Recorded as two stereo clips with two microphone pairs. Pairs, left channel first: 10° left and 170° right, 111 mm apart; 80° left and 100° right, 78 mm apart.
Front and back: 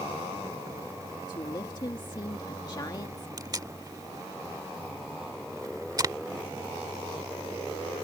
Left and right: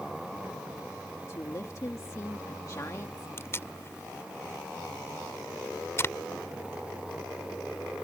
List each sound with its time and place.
1.3 s a woman speaking: 50° left
3.4 s tape being pulled: 135° left